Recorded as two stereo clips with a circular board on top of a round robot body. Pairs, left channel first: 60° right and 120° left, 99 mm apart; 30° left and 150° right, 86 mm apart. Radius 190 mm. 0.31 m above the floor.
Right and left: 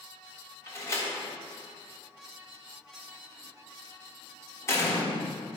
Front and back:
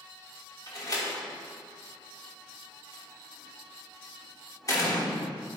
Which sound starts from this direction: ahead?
A door slam, at 0.7 s.